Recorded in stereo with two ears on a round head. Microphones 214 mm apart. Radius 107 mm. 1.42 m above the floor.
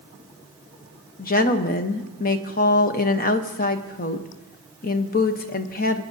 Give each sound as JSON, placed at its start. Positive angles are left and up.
{"t": 1.2, "sound": "a woman speaking", "side_deg": 40, "distance_m": 0.8}